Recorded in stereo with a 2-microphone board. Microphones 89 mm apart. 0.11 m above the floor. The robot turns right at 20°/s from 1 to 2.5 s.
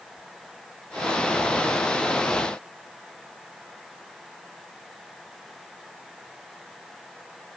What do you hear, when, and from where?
Only background noise.